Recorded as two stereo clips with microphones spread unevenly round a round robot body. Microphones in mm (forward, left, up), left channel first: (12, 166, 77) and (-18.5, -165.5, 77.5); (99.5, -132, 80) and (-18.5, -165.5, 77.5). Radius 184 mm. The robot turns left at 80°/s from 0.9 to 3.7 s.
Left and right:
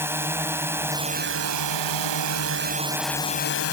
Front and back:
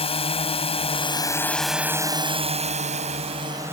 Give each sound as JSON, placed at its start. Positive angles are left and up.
{"t": 0.0, "sound": "a drone", "azimuth_deg": -15}